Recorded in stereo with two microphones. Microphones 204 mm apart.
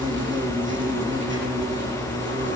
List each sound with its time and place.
0.0 s an insect: 70° right (ahead or behind), 3.5 m